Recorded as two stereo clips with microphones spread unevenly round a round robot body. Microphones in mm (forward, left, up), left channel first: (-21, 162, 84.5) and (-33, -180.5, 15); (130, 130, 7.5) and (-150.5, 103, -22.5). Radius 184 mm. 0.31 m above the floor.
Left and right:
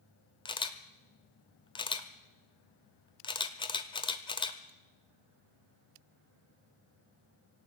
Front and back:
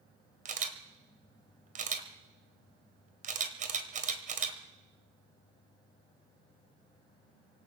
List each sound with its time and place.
0.5 s a camera shutter: 175° left, 1.3 m